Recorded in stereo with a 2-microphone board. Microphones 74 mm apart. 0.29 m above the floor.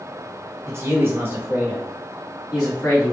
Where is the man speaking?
40° right (ahead or behind), 1.9 m; by 3.1 s 20° left (ahead or behind), 2.5 m.